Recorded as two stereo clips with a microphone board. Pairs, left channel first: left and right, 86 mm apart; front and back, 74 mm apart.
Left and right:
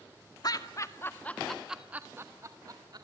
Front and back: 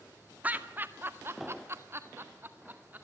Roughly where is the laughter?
Behind left.